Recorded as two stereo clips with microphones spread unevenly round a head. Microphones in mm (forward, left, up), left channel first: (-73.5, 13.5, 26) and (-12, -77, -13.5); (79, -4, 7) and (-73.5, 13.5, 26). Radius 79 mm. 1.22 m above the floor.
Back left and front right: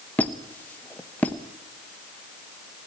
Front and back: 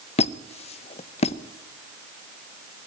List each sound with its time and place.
0.2 s a squeak: 45° left, 0.7 m